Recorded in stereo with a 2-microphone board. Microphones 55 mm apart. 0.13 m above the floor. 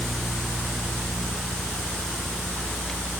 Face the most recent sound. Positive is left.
No sound to turn to.